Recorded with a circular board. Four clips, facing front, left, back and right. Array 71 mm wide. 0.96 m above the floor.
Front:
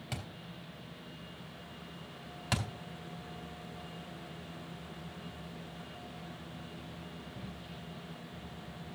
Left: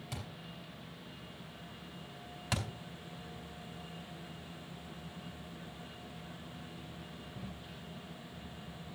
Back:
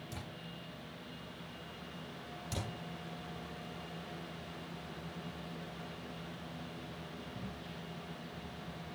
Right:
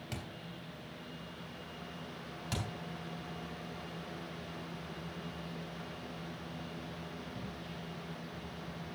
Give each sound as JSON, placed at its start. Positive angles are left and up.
{"t": 0.1, "sound": "a thud", "azimuth_deg": -15, "distance_m": 4.0}
{"t": 2.5, "sound": "a thud", "azimuth_deg": 25, "distance_m": 3.0}